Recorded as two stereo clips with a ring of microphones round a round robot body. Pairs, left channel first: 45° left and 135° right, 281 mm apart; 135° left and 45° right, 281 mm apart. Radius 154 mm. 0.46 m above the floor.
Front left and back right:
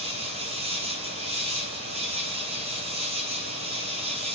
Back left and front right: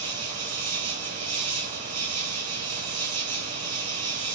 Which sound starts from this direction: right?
An insect, at 0.0 s.